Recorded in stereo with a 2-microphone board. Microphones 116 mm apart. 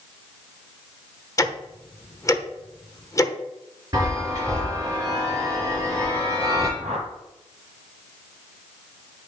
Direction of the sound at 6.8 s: 65° right (ahead or behind).